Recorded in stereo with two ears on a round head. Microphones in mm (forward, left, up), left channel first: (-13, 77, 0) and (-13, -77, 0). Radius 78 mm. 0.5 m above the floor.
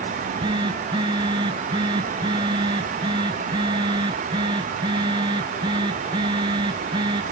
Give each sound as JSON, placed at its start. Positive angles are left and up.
{"t": 0.1, "sound": "a phone buzzing", "side_deg": -30}